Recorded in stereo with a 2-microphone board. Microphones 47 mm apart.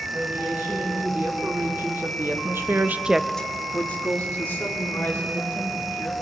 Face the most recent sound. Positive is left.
turn(degrees=50)  # may be behind; listen again after turning